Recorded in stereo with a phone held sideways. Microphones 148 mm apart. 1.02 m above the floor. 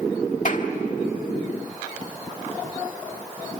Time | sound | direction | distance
0.5 | a clap | 60° left (ahead or behind) | 1.5 m